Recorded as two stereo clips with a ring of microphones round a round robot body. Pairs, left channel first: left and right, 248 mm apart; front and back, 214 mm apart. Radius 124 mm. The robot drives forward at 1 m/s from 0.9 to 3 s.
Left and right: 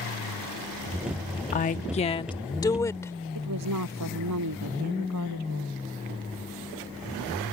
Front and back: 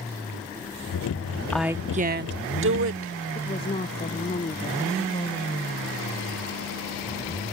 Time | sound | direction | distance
1.5 | a woman speaking | 75° left | ?
3.4 | a woman speaking | 70° right | ?